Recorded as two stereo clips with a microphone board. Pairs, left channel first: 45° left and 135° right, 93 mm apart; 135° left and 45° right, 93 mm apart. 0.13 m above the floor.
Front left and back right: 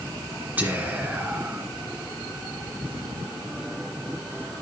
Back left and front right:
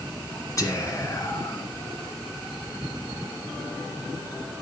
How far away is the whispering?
About 2 m.